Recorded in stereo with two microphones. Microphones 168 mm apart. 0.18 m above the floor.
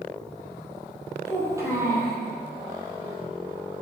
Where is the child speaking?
20° right (ahead or behind), 3 m.